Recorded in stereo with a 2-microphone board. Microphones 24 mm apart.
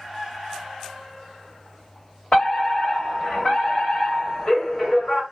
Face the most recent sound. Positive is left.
turn(degrees=45)  # may be behind; listen again after turning